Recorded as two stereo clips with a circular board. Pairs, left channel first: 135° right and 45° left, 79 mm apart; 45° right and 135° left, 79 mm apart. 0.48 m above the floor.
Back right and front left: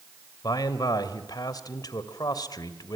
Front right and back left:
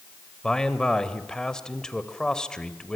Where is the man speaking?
125° right, 1.7 m.